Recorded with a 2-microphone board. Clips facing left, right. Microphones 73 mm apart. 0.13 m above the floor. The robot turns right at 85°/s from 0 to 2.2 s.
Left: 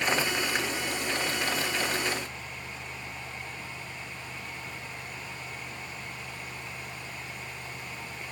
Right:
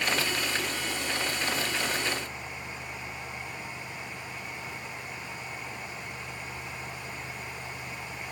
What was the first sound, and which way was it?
Only background noise.